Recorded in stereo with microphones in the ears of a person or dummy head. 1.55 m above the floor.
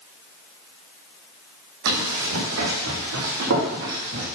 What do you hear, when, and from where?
1.9 s running footsteps: 70° right (ahead or behind), 4.5 m; by 4.2 s 60° right (ahead or behind), 4 m